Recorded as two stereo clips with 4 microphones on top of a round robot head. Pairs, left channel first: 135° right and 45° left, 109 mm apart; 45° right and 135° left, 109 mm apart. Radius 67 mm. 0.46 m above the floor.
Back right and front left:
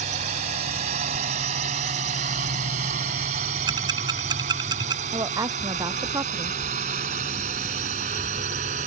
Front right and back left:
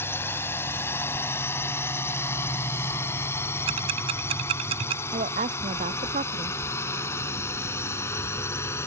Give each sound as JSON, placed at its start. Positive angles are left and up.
{"t": 0.0, "sound": "a drone", "azimuth_deg": 25}
{"t": 3.7, "sound": "ticking", "azimuth_deg": 95}
{"t": 5.1, "sound": "a woman speaking", "azimuth_deg": 105}